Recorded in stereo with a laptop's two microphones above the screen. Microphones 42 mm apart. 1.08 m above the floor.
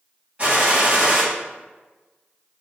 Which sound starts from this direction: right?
A gunshot, at 0.4 s.